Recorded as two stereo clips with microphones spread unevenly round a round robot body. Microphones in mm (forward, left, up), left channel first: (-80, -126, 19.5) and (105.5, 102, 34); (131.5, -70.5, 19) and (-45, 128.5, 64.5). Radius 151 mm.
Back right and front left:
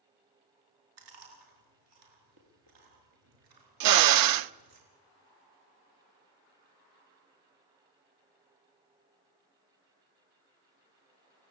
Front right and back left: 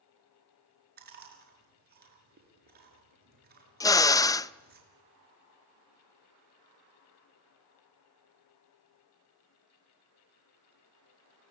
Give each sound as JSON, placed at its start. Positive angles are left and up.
{"t": 1.0, "sound": "chewing", "azimuth_deg": 75, "distance_m": 6.0}
{"t": 3.8, "sound": "a drill", "azimuth_deg": 30, "distance_m": 0.6}